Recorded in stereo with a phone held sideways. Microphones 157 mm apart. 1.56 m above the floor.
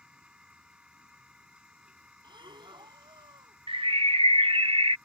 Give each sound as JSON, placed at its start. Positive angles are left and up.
{"t": 0.0, "sound": "a machine running", "side_deg": -5}
{"t": 2.2, "sound": "breathing", "side_deg": -30}
{"t": 3.7, "sound": "a bird", "side_deg": -35}